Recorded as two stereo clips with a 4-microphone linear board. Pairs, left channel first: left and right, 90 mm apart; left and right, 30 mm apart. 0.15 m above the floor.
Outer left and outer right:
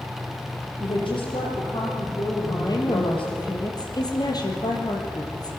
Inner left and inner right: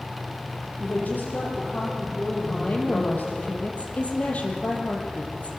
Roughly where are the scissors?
No scissors in this recording.